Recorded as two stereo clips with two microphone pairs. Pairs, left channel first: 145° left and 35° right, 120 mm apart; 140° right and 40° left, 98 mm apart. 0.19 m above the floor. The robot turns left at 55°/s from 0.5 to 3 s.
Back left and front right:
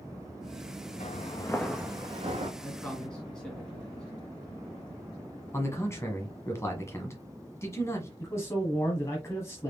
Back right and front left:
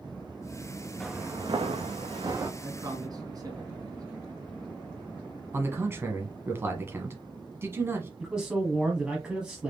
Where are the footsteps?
135° left, 1.0 m; by 2.5 s 20° right, 1.6 m.